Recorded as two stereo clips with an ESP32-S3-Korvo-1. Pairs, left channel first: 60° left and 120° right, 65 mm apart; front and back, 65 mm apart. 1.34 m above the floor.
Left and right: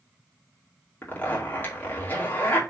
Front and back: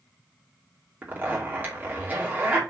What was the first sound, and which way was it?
A zipper, 120° left.